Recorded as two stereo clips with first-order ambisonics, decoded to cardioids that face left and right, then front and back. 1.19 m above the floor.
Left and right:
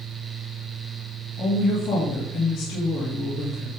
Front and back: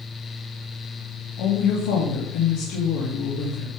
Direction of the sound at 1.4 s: 20° left.